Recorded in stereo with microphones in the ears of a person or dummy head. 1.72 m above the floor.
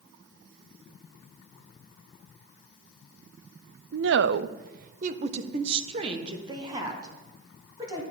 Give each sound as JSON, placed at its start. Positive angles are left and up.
{"t": 3.9, "sound": "a woman speaking", "side_deg": -65, "distance_m": 0.6}